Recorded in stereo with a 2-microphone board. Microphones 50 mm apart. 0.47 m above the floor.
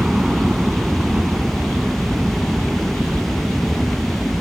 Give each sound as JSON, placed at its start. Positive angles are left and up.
{"t": 0.0, "sound": "a helicopter", "side_deg": -10}